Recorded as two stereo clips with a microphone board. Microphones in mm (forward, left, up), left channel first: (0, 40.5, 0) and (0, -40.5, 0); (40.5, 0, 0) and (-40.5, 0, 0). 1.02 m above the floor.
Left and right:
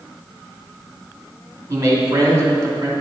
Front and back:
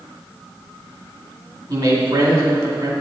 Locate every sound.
1.7 s a man speaking: 145° right, 2 m